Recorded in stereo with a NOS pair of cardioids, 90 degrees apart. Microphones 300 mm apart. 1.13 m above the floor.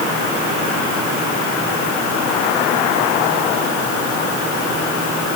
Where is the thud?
I don't hear a thud.